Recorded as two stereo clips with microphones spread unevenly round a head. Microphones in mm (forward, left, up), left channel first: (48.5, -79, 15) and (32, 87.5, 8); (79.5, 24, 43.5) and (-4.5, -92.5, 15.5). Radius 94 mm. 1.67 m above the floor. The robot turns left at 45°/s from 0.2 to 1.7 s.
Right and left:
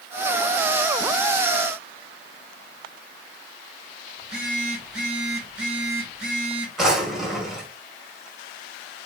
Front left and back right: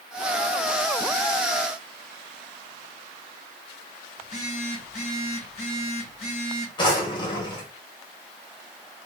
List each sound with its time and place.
4.2 s a phone buzzing: 10° left, 4 m
6.8 s a drawer: 10° left, 1.7 m